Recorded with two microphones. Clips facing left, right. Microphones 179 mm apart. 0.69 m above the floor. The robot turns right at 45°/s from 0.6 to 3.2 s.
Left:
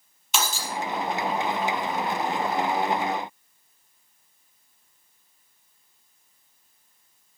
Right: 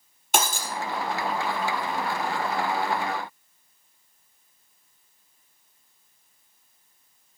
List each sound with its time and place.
0.3 s breaking glass: 55° right (ahead or behind), 3.5 m; by 0.7 s 60° right (ahead or behind), 3.5 m